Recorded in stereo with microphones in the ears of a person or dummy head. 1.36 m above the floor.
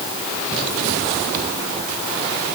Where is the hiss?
No hiss in this recording.